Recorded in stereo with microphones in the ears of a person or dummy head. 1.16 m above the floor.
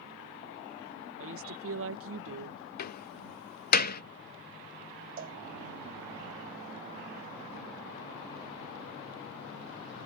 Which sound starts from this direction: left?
A door slam, at 2.8 s.